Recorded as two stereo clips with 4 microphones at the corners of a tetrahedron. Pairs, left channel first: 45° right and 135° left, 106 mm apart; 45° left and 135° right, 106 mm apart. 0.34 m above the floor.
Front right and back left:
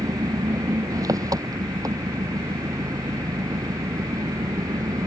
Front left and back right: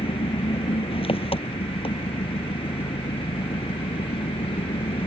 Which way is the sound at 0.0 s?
80° left.